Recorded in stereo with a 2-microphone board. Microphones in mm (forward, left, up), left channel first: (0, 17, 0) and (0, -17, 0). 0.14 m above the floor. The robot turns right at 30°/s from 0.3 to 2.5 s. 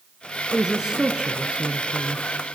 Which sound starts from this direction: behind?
A woman speaking, at 0.5 s.